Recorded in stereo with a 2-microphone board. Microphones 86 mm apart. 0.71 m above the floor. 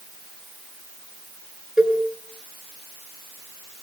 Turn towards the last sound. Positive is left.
turn(degrees=-10)  # may be behind; listen again after turning